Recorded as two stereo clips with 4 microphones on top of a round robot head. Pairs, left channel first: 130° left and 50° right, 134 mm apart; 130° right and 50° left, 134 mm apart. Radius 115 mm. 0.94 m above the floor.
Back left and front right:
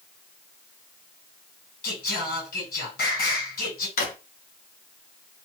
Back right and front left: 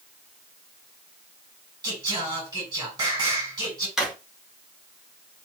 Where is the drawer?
140° left, 1.1 m.